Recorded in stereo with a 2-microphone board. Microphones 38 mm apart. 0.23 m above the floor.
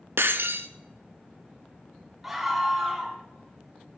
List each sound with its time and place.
0.2 s breaking glass: 80° right, 0.5 m
2.2 s a scream: 10° right (ahead or behind), 1.8 m